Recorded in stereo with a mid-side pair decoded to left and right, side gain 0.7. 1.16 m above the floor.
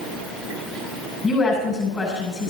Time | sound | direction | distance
1.2 | a woman speaking | 30° left | 8 m